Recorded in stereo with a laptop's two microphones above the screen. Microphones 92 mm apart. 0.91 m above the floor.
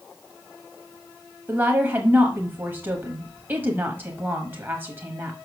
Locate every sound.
1.5 s a woman speaking: 20° right (ahead or behind), 0.9 m